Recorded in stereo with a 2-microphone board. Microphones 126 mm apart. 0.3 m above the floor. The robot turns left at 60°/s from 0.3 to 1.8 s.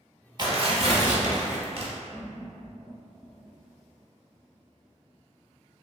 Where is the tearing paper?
40° right, 0.6 m; by 1.9 s 125° right, 0.6 m.